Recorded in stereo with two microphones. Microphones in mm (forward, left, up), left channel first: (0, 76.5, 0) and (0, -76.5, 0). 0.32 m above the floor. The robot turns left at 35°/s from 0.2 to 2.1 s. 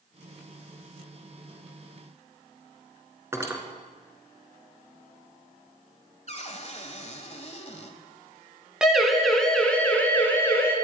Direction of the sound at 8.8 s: 5° right (ahead or behind).